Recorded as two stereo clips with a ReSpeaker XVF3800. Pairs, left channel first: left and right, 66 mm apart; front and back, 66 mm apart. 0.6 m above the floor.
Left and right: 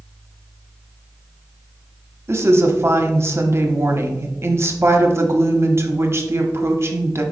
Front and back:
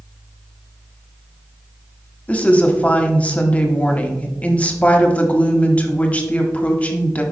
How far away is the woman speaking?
About 1.1 m.